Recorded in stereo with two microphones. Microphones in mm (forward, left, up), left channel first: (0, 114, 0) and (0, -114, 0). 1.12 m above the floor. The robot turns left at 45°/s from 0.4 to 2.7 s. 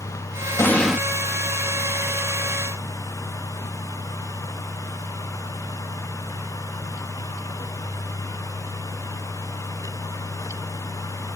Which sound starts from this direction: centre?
An explosion, at 0.6 s.